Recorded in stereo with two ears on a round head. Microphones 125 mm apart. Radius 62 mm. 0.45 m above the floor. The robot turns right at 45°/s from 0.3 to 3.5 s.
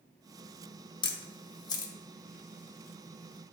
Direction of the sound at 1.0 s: 35° left (ahead or behind).